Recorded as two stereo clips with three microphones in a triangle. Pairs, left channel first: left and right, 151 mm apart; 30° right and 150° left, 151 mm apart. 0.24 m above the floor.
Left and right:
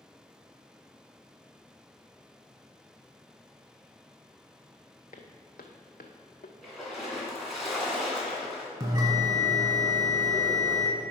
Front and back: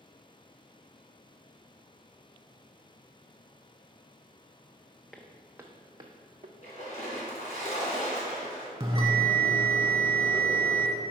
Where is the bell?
150° right, 1.4 m.